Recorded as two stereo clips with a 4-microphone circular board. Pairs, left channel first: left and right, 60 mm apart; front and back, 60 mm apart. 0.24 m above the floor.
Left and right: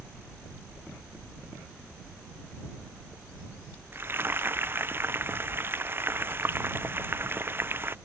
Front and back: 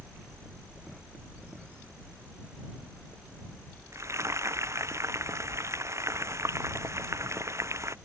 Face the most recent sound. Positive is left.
turn(degrees=-145)